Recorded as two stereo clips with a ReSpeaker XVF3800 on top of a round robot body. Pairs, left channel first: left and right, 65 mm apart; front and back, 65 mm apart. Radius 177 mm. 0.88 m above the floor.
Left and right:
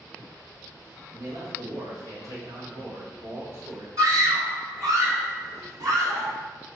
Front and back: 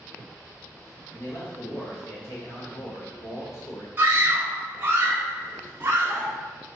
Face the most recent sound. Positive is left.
turn(degrees=-120)